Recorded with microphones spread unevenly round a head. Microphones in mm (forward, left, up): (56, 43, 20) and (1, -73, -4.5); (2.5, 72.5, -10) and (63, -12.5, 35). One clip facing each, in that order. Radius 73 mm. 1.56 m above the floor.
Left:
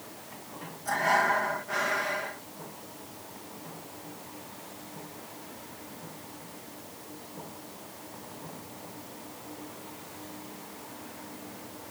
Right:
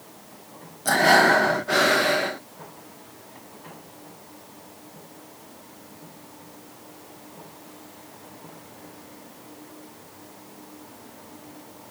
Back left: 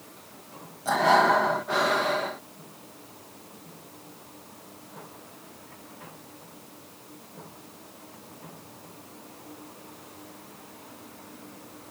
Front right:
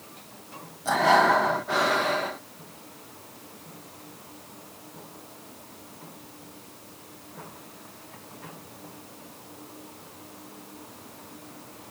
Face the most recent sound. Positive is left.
turn(degrees=-135)